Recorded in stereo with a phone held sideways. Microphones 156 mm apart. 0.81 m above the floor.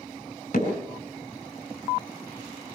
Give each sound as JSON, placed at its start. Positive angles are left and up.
{"t": 0.5, "sound": "hammering", "side_deg": 55, "distance_m": 4.5}